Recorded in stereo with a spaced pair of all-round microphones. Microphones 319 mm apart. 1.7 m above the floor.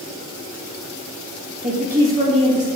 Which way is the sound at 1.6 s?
20° right (ahead or behind).